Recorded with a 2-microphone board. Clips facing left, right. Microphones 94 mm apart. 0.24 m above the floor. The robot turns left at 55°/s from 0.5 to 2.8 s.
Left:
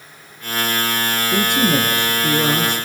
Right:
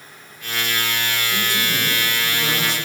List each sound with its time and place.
1.3 s a man speaking: 130° left, 3.5 m; by 2.9 s 45° left, 3.5 m